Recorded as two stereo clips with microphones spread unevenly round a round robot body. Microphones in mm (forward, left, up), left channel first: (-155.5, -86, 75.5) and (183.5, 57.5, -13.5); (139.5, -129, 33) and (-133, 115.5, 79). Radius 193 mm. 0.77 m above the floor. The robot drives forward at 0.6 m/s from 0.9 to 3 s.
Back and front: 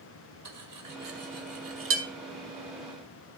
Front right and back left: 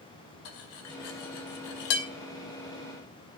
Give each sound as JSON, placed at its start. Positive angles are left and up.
{"t": 0.5, "sound": "cutlery clinking", "azimuth_deg": -25, "distance_m": 2.0}